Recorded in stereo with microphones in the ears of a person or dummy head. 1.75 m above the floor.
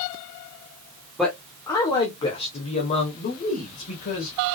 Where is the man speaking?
Centre (ahead or behind), 0.8 m; by 4.3 s 50° left (ahead or behind), 2 m.